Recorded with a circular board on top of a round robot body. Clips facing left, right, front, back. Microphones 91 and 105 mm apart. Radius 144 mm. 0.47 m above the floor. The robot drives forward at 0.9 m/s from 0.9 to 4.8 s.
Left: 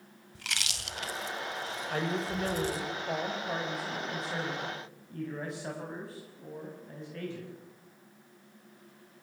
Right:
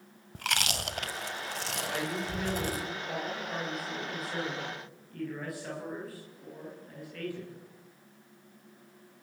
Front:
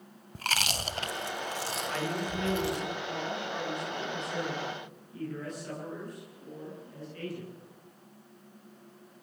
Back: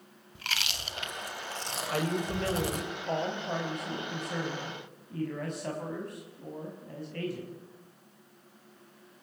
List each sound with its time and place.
0.3 s chewing: 50° right, 1.2 m; by 2.9 s 140° right, 1.4 m
1.9 s a man speaking: 135° left, 3.5 m; by 7.5 s 155° left, 5.5 m